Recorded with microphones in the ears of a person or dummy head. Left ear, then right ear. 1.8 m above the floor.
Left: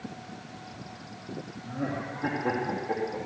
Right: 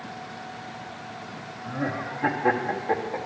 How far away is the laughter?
About 1.1 m.